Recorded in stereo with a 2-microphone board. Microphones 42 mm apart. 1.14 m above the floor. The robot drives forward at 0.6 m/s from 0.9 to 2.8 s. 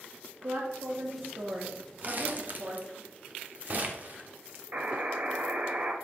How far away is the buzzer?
About 1.0 m.